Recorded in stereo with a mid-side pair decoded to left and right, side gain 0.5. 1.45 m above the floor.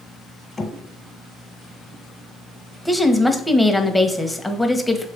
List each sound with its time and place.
0.6 s knocking: 25° left, 1.6 m
2.9 s a woman speaking: 5° left, 1.1 m